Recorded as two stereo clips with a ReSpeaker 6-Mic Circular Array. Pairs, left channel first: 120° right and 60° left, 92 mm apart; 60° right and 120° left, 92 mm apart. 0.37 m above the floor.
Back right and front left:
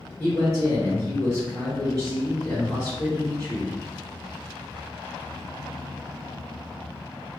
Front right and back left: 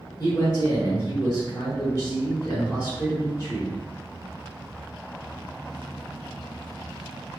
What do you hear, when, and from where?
0.2 s a man speaking: 80° right, 1.0 m